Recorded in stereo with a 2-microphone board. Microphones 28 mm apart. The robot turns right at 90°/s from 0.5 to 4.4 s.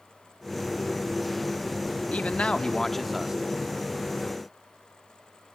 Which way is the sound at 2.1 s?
95° left.